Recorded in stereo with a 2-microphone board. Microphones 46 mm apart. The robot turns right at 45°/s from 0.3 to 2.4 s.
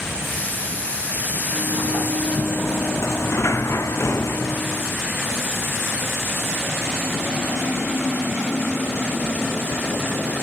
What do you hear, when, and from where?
1.5 s a sliding door: 70° left; by 4.9 s 110° left